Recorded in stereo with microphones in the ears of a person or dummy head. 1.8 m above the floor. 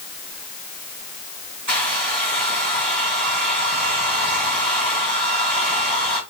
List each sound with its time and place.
1.7 s a hair dryer: 45° right (ahead or behind), 3 m